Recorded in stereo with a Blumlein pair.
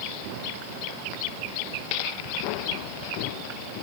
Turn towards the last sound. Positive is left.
No sound to turn to.